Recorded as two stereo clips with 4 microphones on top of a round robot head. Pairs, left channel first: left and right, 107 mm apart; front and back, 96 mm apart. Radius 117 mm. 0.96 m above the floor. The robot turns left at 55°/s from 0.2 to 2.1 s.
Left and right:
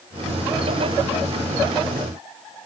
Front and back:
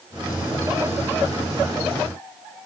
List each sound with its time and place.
Only background noise.